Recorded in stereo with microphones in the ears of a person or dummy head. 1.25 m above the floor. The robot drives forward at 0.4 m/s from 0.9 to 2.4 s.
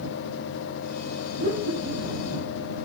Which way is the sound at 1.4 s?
30° left (ahead or behind).